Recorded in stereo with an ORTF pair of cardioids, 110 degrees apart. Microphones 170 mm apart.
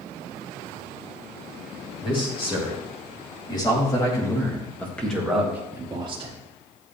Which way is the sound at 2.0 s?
30° left.